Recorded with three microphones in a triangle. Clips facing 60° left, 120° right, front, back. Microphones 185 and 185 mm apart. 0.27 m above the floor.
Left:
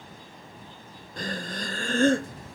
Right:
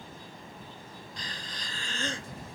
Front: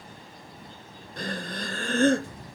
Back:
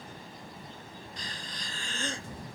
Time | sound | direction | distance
1.2 | breathing | 25° left | ?